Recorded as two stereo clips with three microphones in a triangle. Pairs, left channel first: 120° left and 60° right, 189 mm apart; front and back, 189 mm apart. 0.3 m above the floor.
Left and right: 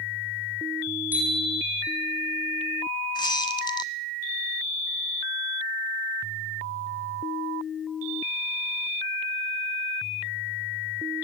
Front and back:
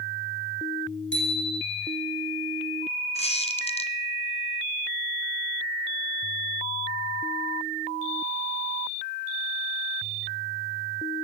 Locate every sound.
1.1 s a bicycle bell: 20° left, 9 m
3.1 s a squeak: 55° left, 2.0 m